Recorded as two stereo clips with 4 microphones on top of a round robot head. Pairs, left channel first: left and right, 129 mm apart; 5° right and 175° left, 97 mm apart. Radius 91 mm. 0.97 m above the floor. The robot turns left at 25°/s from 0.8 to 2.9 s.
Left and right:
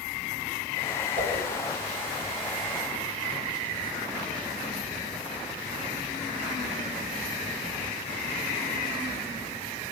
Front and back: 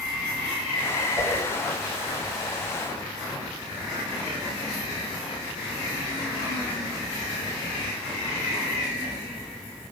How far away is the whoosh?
About 4 m.